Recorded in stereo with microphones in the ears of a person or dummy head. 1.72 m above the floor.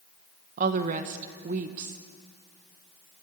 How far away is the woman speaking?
About 1.3 m.